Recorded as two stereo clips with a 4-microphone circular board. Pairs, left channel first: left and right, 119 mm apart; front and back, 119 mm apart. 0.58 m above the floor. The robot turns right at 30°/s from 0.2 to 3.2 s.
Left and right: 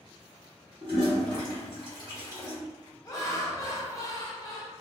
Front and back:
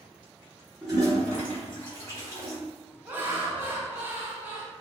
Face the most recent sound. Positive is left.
turn(degrees=120)